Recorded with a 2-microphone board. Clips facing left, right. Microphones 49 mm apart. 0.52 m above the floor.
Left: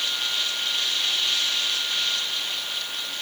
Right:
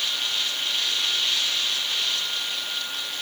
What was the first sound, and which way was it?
Only background noise.